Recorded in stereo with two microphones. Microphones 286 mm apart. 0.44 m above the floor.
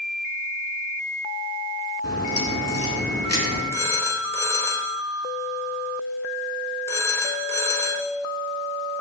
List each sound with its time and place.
2.0 s a crack: 60° left (ahead or behind), 3 m
3.7 s a phone ringing: 10° left (ahead or behind), 1.2 m